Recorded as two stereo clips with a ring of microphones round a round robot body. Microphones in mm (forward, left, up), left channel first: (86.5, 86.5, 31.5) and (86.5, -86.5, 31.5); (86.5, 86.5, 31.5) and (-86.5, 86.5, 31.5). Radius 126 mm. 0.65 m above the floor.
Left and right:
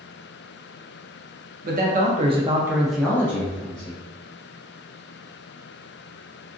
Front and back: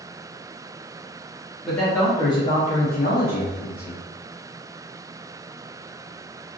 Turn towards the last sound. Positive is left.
turn(degrees=30)